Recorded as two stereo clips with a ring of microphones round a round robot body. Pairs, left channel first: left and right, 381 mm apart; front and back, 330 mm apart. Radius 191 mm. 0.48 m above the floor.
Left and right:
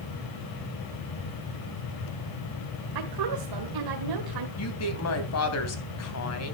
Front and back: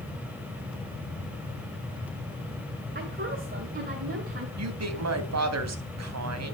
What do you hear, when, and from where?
3.0 s a woman speaking: 115° right, 2 m
4.6 s a woman speaking: 140° left, 3 m